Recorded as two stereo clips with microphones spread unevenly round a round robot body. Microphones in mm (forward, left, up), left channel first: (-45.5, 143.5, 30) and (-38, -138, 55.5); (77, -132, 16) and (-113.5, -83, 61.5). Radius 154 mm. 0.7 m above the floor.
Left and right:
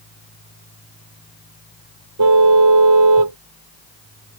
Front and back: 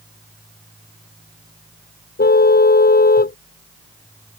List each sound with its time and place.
2.2 s a car horn: 55° right